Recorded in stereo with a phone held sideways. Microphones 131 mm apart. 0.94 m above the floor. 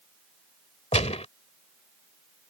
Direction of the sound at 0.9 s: 55° left (ahead or behind).